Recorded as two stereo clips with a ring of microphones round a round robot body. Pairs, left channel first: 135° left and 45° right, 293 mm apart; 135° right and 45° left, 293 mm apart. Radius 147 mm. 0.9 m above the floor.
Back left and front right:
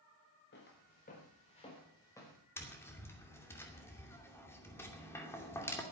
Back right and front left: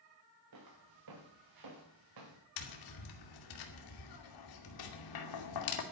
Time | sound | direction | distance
0.5 | footsteps | 80° left | 4 m
2.6 | tapping | 145° right | 2.5 m